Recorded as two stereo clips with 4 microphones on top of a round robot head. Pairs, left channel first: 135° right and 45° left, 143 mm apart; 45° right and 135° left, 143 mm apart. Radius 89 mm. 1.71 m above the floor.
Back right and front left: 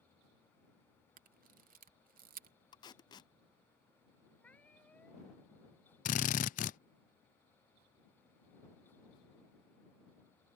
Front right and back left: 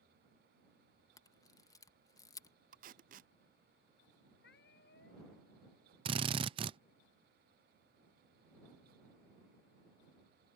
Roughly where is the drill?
Behind.